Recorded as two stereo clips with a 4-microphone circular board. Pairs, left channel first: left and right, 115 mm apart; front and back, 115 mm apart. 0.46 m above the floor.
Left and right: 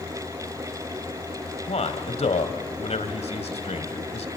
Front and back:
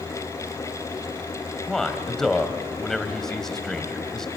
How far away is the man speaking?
About 2.0 m.